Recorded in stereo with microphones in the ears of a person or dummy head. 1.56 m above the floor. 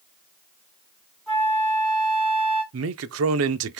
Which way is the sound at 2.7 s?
70° right (ahead or behind).